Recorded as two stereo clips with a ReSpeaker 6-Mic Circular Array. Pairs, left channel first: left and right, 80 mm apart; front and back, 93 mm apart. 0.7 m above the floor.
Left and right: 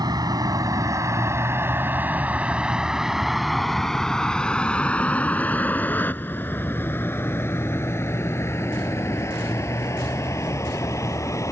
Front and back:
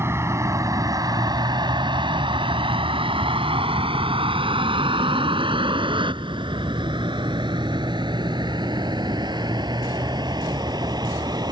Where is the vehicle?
120° right; by 11.5 s 140° left.